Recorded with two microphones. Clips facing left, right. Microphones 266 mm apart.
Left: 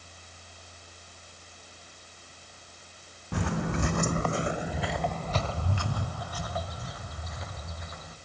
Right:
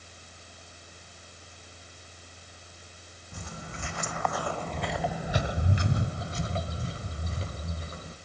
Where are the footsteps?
85° left, 0.7 m; by 8.2 s 35° right (ahead or behind), 2.5 m.